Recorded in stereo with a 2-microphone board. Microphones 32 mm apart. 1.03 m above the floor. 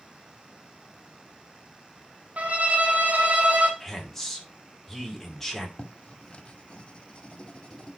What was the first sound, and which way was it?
A violin, 60° right (ahead or behind).